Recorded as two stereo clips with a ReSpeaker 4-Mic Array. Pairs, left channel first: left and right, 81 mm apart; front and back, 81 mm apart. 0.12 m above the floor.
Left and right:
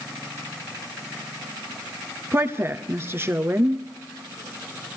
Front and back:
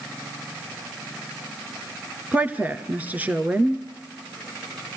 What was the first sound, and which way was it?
A woman speaking, 125° right.